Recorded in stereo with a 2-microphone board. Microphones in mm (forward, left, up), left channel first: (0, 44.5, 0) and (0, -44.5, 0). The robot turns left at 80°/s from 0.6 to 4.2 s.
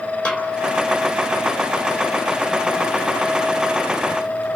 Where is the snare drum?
15° left (ahead or behind), 3.5 m.